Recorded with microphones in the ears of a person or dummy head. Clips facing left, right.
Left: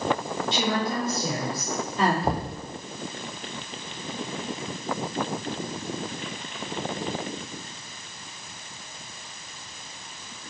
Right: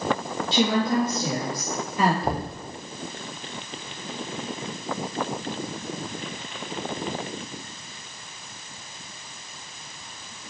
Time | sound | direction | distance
0.5 | a woman speaking | 35° right (ahead or behind) | 2 m
2.2 | knocking | 5° left (ahead or behind) | 0.8 m